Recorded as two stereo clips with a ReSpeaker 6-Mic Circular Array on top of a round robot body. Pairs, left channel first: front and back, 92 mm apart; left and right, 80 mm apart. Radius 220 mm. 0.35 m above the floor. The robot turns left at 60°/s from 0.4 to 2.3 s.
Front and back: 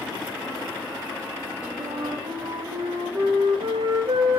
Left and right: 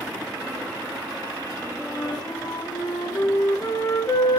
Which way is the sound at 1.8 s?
175° left.